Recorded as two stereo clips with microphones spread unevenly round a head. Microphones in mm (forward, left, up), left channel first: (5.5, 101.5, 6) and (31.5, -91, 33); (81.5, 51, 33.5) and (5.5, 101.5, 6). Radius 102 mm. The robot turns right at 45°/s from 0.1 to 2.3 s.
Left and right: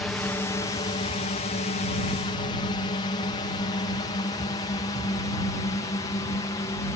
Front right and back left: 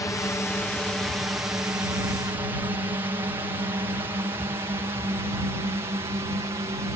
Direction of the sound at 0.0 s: 20° left.